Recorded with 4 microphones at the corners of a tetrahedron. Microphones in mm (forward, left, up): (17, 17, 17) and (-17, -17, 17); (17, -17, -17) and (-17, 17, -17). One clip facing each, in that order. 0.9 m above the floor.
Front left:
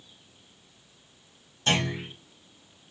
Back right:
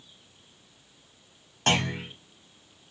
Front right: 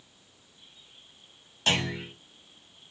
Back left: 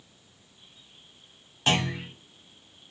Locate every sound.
1.7 s a clunk: 150° right, 1.3 m